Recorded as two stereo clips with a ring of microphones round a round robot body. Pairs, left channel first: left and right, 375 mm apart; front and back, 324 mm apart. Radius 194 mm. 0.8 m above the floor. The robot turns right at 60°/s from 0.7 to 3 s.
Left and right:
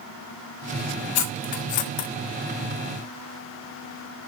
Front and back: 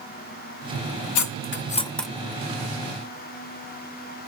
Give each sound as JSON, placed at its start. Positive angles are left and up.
{"t": 1.1, "sound": "cutlery clinking", "azimuth_deg": 35, "distance_m": 0.7}